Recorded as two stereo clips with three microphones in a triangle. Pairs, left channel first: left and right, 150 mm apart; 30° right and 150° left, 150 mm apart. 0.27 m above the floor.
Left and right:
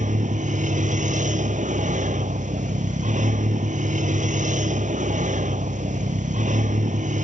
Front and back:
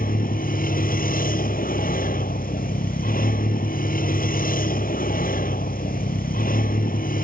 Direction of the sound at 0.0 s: 55° right.